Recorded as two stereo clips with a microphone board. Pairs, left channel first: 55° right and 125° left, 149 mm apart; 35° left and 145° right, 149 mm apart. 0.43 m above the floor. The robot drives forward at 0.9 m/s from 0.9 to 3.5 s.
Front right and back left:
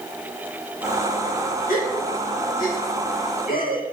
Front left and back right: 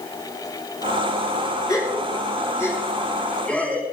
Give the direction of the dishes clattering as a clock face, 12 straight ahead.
No dishes clattering in this recording.